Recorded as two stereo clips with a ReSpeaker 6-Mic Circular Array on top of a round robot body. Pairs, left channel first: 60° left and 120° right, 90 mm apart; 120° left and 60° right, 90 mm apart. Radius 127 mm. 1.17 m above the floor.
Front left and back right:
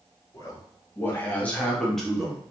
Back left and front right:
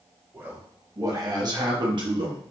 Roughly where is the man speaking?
Ahead.